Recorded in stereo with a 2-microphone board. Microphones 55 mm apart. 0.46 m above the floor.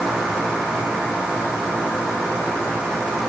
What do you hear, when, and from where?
Only background noise.